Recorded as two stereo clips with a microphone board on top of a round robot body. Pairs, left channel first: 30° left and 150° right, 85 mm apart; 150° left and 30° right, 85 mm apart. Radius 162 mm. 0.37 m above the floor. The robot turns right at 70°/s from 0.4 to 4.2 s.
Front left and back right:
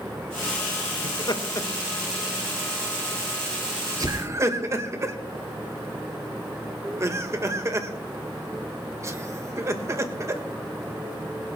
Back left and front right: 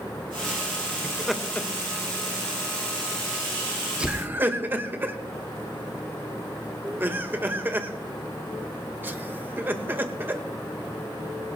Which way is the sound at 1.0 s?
45° left.